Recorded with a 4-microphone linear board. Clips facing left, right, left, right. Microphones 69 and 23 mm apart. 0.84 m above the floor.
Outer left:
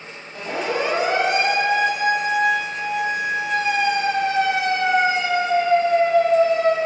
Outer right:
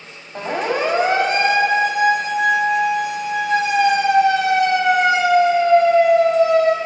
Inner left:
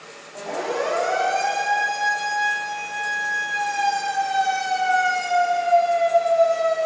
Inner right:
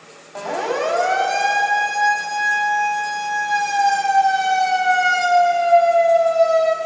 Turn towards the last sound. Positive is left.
turn(degrees=-75)  # may be behind; listen again after turning